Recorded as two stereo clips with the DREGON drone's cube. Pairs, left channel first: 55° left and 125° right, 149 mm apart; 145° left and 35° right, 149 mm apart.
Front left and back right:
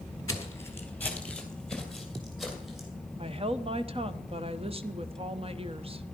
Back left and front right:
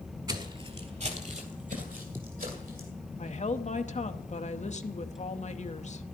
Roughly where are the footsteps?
Ahead.